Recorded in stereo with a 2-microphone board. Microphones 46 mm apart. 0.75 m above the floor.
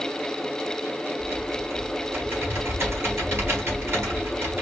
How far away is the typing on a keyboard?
About 3.5 m.